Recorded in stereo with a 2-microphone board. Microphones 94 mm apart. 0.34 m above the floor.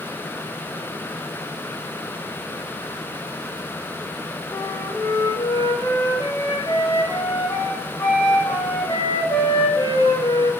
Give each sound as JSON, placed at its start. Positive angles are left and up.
{"t": 4.5, "sound": "a flute", "side_deg": 45, "distance_m": 0.8}